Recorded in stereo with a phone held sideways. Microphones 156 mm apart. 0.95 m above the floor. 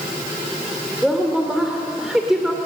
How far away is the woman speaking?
About 2.5 m.